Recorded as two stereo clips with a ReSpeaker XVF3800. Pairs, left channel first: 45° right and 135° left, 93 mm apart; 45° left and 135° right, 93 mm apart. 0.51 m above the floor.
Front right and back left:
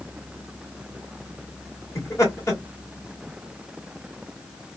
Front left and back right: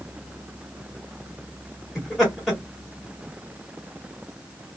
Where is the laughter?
45° right, 1.3 m.